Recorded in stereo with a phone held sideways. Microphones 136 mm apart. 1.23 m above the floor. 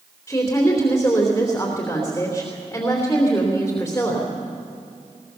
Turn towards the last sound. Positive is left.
turn(degrees=20)  # may be behind; listen again after turning